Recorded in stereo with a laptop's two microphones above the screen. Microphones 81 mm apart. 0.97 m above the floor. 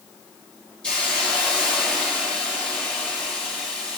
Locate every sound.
0.8 s a hiss: 10° left (ahead or behind), 4.5 m